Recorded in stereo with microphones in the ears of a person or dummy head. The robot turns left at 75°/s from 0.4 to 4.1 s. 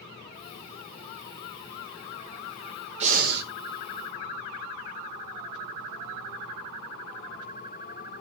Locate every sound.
3.0 s breathing: 40° right, 1.4 m; by 3.5 s 75° right, 1.4 m